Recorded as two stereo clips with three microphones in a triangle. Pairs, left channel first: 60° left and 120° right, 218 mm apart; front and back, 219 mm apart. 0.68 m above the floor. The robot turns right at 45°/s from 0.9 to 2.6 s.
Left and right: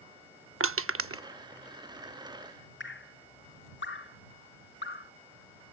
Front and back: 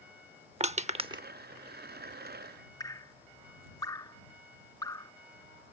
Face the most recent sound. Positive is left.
turn(degrees=75)